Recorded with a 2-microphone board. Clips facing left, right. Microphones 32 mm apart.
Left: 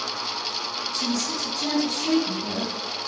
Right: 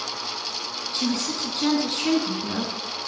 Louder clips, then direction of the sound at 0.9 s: Right 2 dB; 50° right (ahead or behind).